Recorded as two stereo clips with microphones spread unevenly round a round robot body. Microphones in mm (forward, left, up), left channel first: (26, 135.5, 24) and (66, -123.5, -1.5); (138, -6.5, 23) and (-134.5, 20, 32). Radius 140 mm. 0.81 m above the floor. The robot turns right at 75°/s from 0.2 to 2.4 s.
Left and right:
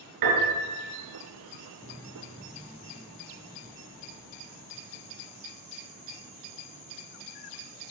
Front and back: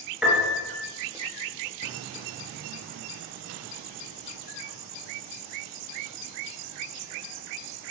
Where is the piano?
100° right, 4.5 m; by 0.8 s 55° right, 4.5 m.